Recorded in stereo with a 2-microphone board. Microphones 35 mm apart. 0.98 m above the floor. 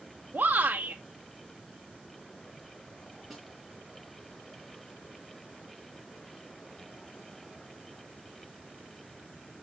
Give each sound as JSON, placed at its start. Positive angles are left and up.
{"t": 0.3, "sound": "a shout", "side_deg": -55, "distance_m": 0.7}
{"t": 3.3, "sound": "a snare drum", "side_deg": 5, "distance_m": 3.0}